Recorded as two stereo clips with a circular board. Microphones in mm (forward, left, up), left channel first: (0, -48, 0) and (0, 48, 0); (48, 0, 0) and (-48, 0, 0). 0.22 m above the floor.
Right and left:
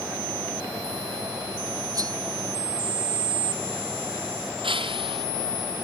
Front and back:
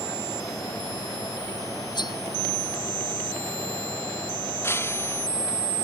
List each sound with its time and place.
1.9 s cutlery clinking: 40° left
4.6 s breaking glass: 65° left